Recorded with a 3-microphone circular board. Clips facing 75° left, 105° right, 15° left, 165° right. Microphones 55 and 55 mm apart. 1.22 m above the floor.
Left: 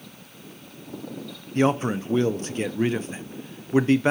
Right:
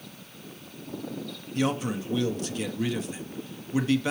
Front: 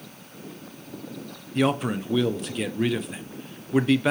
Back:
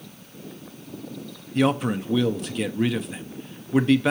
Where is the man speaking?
105° left, 0.6 m.